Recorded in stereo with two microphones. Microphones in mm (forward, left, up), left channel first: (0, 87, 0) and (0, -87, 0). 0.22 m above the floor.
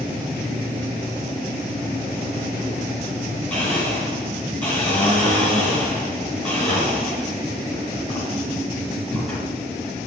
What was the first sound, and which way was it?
A blender, 10° left (ahead or behind).